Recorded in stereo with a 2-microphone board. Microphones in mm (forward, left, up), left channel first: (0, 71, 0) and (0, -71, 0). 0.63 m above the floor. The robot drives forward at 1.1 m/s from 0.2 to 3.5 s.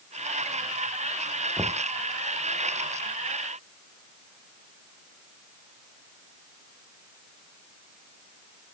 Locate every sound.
1.6 s knocking: 20° right (ahead or behind)